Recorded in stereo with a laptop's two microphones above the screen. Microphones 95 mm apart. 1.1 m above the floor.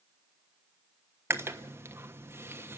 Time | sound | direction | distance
1.3 | chewing | 25° right (ahead or behind) | 1.2 m